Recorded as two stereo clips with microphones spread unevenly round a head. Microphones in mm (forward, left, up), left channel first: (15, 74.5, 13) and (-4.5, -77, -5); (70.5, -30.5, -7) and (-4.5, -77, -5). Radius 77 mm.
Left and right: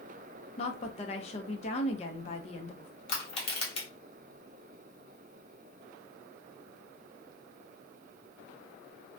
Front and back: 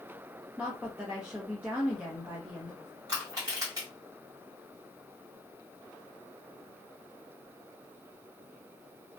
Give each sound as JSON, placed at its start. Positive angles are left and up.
{"t": 0.6, "sound": "a woman speaking", "azimuth_deg": 130, "distance_m": 0.6}
{"t": 3.1, "sound": "crushing", "azimuth_deg": 140, "distance_m": 0.9}